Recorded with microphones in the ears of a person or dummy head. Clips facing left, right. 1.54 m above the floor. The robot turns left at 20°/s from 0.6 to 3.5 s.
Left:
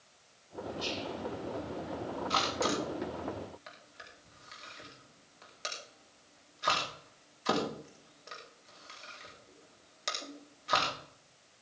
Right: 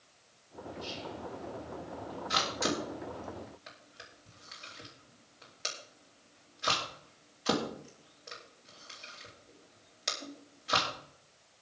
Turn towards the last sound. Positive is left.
turn(degrees=-5)  # may be behind; listen again after turning